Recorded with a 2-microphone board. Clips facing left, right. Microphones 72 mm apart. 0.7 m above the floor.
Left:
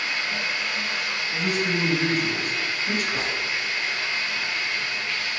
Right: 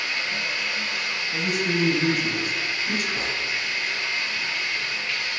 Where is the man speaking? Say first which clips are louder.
Even; 45° left (ahead or behind), 4 m.